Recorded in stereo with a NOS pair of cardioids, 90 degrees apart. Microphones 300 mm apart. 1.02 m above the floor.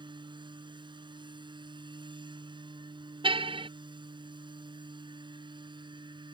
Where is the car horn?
20° right.